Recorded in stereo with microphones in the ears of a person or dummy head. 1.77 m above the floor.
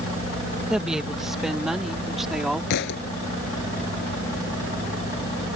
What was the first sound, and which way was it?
A woman speaking, 5° right (ahead or behind).